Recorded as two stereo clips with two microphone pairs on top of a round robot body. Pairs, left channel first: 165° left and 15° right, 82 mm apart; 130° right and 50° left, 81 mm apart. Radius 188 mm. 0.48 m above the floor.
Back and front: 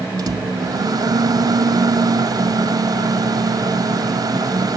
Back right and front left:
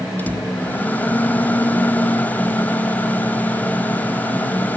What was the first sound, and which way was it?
A microwave, 60° right.